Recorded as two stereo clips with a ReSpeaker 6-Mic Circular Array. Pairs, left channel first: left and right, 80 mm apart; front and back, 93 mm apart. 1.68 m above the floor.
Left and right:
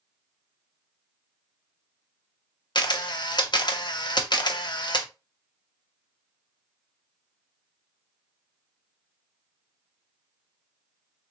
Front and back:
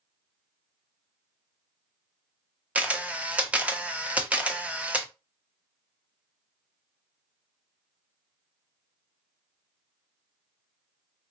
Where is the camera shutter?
105° left, 0.7 m.